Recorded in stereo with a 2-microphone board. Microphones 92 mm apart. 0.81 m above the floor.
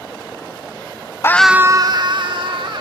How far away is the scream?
About 0.5 m.